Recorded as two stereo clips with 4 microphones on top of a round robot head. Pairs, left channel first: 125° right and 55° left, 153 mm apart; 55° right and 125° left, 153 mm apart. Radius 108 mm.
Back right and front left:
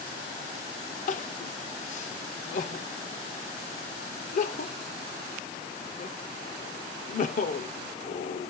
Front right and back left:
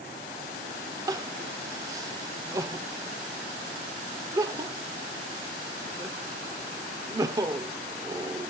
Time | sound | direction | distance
1.1 | crying | 165° right | 0.8 m